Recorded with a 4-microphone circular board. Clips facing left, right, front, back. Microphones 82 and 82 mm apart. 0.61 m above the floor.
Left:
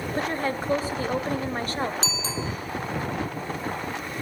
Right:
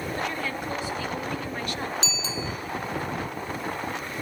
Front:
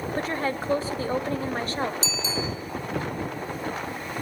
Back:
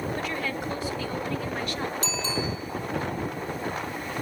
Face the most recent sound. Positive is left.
turn(degrees=140)